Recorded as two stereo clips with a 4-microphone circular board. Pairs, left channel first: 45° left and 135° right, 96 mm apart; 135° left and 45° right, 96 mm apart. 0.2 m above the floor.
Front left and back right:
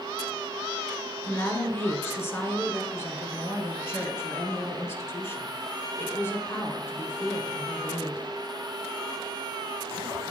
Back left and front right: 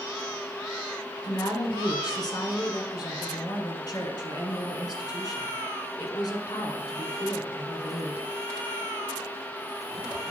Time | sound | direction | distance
1.2 | a woman speaking | 105° left | 1.8 m